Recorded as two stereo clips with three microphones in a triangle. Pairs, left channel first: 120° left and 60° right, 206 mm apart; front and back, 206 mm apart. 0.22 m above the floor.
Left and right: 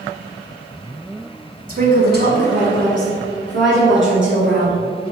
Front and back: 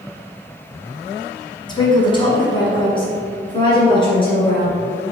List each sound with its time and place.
1.7 s a woman speaking: 55° right, 1.2 m; by 4.8 s 65° right, 3 m